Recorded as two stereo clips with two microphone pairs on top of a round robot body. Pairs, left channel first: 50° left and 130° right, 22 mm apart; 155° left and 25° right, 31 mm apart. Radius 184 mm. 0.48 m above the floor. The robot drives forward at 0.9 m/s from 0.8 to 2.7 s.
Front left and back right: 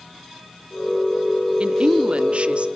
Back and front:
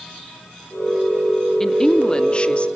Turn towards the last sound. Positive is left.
turn(degrees=-155)